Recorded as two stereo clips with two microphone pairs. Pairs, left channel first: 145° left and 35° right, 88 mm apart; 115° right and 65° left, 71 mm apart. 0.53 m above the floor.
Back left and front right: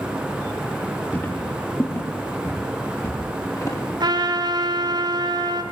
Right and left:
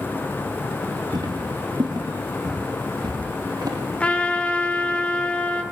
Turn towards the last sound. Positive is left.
turn(degrees=-45)